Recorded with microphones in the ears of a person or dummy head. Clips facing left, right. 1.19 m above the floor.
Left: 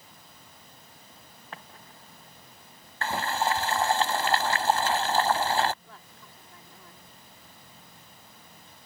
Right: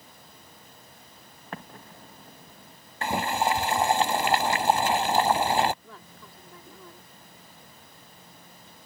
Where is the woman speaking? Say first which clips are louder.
Right 3 dB; 75° right (ahead or behind).